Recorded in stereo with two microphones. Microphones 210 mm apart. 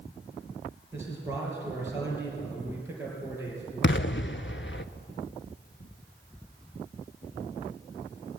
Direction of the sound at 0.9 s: 10° right (ahead or behind).